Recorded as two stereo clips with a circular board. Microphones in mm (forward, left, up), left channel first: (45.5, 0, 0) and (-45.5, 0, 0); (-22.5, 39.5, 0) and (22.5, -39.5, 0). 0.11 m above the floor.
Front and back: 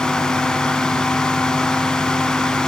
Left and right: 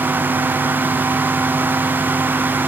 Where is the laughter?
I don't hear laughter.